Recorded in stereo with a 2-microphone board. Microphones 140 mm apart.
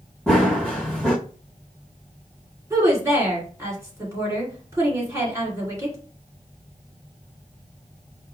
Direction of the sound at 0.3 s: Centre (ahead or behind).